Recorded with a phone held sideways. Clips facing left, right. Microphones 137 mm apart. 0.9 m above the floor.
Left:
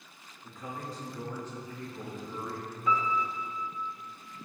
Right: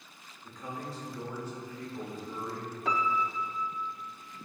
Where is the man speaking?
10° left (ahead or behind), 3 m; by 2.8 s 30° right (ahead or behind), 4 m.